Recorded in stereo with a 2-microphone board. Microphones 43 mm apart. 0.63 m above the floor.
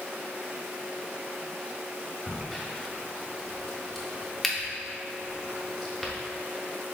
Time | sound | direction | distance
2.3 | a crack | 5° left (ahead or behind) | 0.6 m